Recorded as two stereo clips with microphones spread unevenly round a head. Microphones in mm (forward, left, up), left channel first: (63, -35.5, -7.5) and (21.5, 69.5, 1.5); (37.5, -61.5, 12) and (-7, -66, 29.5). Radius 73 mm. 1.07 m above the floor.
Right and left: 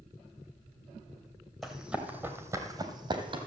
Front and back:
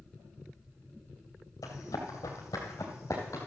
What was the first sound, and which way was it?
Running footsteps, 25° left.